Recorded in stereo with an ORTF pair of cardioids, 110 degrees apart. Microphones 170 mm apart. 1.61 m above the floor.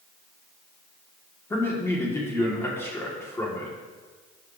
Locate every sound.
1.5 s a man speaking: 15° left, 3.5 m